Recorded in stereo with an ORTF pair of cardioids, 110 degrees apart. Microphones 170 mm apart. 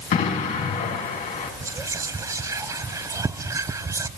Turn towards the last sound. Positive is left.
turn(degrees=-20)